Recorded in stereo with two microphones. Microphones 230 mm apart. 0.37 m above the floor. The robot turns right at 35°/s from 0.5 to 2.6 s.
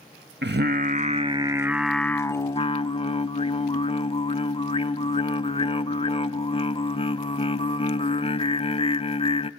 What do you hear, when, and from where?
0.4 s singing: 50° right, 0.5 m; by 9.5 s 25° left, 0.5 m